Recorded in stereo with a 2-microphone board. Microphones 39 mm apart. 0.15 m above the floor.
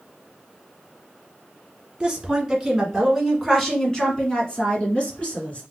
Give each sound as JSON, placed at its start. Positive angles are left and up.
{"t": 2.0, "sound": "a woman speaking", "side_deg": -15, "distance_m": 1.5}